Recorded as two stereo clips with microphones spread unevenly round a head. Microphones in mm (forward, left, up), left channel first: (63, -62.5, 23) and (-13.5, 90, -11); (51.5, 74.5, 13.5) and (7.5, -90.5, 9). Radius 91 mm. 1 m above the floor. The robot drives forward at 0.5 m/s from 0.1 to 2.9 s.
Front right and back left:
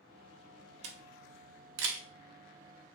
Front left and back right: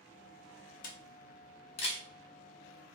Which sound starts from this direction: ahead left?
A camera shutter, at 0.8 s.